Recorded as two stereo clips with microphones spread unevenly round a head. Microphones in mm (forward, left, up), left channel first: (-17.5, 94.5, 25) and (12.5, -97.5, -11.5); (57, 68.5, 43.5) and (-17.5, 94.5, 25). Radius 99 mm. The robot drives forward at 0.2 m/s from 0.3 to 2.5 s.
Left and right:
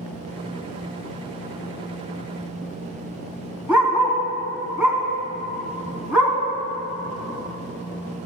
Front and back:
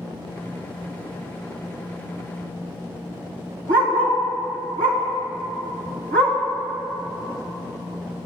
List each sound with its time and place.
3.7 s a dog barking: 165° right, 2.5 m